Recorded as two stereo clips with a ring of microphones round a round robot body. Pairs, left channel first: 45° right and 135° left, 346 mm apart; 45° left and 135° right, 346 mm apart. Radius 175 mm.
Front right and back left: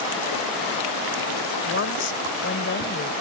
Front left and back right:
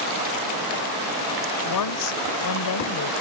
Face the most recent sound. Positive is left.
turn(degrees=10)